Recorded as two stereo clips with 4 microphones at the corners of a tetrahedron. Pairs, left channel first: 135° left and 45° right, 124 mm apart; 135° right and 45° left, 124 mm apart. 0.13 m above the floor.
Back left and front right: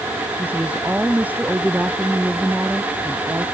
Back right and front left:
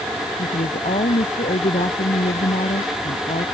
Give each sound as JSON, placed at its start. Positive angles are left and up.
{"t": 0.4, "sound": "a woman speaking", "azimuth_deg": -125}